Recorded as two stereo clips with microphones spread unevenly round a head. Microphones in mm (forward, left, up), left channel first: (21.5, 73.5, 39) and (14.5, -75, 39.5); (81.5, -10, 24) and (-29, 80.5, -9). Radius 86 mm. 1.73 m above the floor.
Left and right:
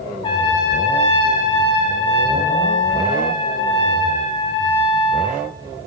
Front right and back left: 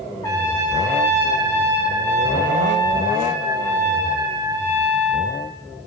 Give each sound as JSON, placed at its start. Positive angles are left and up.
{"t": 0.2, "sound": "a trumpet", "azimuth_deg": 30, "distance_m": 4.0}